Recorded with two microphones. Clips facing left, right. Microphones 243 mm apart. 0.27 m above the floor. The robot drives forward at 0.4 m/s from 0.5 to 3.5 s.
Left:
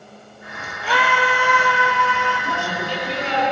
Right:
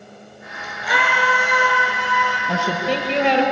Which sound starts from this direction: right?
A woman speaking, at 2.5 s.